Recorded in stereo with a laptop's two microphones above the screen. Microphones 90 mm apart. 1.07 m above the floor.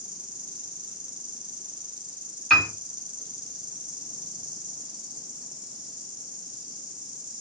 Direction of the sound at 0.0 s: 55° right (ahead or behind).